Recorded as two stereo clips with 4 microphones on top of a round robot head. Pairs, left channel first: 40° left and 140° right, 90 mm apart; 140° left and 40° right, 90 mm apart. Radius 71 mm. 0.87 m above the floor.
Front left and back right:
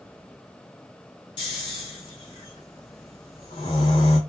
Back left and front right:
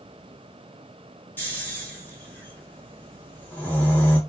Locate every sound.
1.4 s snoring: 70° left, 0.7 m